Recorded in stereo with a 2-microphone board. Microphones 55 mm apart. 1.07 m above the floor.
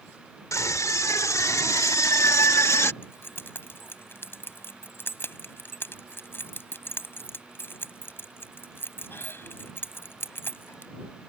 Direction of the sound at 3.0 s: 45° left (ahead or behind).